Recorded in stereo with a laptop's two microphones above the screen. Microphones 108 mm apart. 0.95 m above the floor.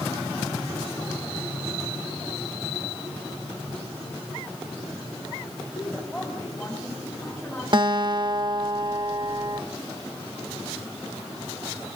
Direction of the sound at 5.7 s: 10° left (ahead or behind).